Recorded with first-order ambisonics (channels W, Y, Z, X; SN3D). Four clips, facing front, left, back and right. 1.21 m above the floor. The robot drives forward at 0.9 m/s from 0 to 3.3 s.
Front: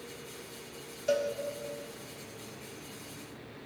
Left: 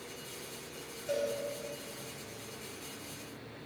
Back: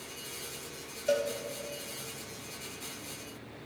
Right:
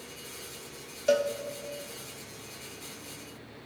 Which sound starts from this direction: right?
A cowbell, at 1.1 s.